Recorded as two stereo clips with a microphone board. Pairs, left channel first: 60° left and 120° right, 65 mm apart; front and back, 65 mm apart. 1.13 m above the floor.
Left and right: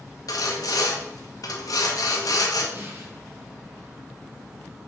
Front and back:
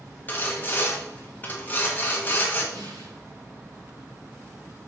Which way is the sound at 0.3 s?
60° left.